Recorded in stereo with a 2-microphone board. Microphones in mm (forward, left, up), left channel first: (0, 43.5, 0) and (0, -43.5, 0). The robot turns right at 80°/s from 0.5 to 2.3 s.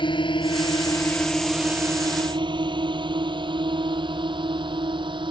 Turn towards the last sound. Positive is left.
turn(degrees=-70)  # may be behind; listen again after turning